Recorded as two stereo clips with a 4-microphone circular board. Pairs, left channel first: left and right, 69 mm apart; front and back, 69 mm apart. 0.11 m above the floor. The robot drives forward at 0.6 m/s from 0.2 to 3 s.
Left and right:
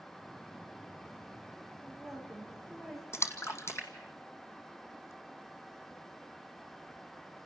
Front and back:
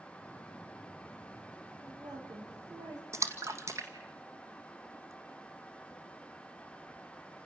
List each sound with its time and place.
1.8 s a woman speaking: 175° left, 8 m
3.1 s a splash: 135° left, 2.0 m